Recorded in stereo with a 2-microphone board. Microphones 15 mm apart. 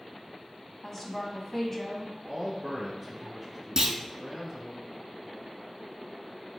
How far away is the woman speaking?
About 1.1 m.